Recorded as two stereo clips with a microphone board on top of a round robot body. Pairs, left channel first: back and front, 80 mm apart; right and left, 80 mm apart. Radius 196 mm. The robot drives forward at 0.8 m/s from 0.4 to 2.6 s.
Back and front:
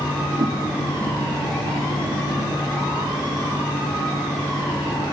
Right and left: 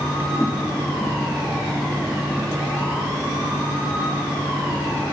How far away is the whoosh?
About 1.1 m.